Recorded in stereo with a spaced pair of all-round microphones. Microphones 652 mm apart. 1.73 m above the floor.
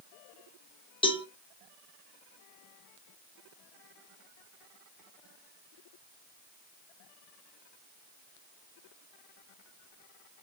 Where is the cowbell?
10° left (ahead or behind), 0.6 m.